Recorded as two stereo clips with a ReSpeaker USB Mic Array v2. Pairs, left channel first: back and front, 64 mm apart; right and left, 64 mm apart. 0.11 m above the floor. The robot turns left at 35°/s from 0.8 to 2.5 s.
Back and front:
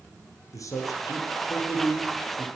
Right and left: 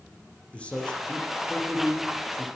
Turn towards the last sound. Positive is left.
turn(degrees=140)